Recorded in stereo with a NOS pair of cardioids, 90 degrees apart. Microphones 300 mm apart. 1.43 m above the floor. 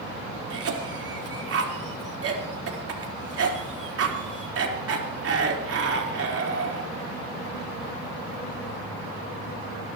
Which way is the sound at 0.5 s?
50° right.